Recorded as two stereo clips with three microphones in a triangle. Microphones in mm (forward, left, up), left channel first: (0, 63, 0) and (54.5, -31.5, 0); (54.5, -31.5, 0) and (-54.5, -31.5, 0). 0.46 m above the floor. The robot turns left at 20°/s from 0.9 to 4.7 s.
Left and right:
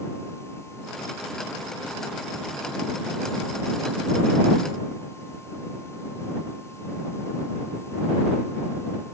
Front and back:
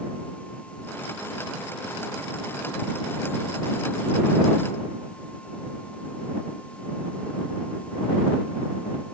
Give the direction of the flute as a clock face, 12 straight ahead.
No flute in this recording.